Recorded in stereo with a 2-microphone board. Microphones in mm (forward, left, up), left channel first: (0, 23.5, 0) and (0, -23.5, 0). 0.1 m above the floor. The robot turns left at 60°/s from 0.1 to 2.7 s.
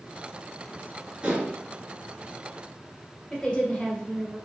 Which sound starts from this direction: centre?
A woman speaking, at 3.3 s.